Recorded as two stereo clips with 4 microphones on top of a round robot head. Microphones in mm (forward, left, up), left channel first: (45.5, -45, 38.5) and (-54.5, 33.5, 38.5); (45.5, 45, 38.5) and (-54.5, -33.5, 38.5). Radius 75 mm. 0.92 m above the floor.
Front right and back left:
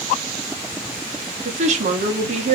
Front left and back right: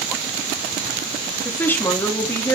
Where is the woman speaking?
110° left, 2.5 m.